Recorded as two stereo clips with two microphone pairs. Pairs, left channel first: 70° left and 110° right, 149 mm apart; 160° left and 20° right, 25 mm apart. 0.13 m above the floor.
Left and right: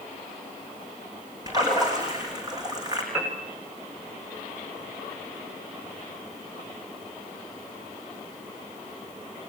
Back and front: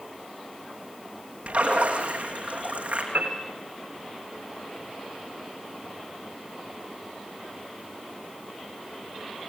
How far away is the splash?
About 5.5 m.